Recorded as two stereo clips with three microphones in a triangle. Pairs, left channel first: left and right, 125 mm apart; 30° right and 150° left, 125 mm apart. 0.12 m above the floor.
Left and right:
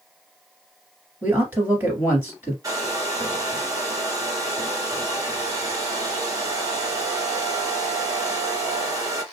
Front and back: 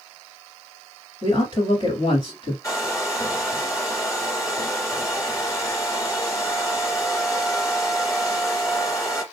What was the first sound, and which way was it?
A man speaking, 30° right.